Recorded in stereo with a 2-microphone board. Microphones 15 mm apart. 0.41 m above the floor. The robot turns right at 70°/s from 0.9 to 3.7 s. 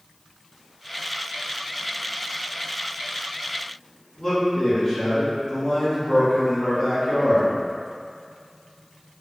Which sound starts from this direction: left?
A man speaking, at 4.2 s.